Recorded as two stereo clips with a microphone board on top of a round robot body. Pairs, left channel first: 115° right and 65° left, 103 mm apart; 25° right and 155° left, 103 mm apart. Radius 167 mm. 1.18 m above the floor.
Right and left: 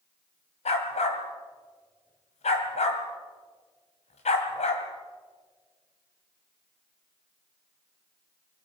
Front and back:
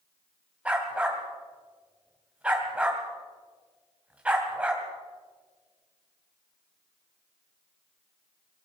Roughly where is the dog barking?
Behind right.